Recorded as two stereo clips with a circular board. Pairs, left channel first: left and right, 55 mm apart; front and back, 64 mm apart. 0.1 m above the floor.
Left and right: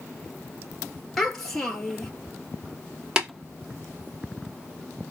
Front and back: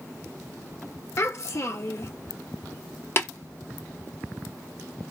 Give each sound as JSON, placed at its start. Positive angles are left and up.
{"t": 1.2, "sound": "a child speaking", "azimuth_deg": 10, "distance_m": 1.5}
{"t": 3.2, "sound": "tapping", "azimuth_deg": -20, "distance_m": 1.8}